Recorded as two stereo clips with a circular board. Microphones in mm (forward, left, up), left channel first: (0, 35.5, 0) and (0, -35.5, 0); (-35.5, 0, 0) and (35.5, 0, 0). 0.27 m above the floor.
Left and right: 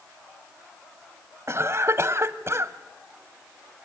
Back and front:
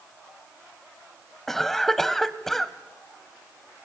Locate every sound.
1.5 s a cough: 100° right, 1.3 m